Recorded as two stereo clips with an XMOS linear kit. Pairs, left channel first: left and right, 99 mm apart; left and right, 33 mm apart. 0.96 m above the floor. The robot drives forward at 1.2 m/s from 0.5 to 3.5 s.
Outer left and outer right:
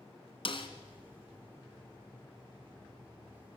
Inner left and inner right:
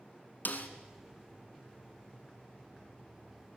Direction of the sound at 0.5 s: 60° left (ahead or behind).